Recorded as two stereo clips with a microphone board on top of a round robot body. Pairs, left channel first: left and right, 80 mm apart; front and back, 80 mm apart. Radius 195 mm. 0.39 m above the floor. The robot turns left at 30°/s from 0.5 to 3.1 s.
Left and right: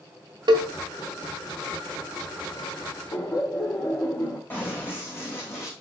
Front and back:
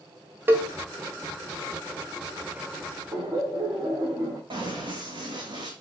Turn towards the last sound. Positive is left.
turn(degrees=145)